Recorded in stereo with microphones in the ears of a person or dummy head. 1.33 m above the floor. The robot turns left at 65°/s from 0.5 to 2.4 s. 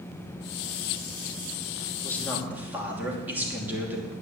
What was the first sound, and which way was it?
A man speaking, 15° left (ahead or behind).